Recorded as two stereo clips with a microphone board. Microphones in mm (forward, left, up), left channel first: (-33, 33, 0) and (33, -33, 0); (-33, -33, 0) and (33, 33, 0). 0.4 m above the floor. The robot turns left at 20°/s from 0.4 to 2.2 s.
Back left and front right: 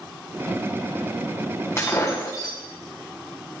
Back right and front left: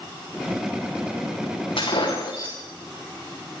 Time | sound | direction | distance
1.8 | breaking glass | 165° right | 5.5 m